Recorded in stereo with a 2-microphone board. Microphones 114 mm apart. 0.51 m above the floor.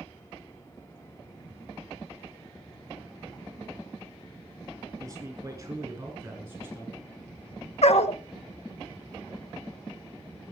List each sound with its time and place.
5.0 s a man speaking: 30° right (ahead or behind), 8 m; by 7.0 s 20° right (ahead or behind), 8 m
7.8 s a dog barking: 70° left (ahead or behind), 0.9 m